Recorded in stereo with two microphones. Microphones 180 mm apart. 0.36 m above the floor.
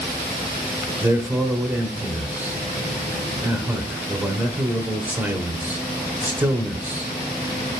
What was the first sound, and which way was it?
A man speaking, 10° right (ahead or behind).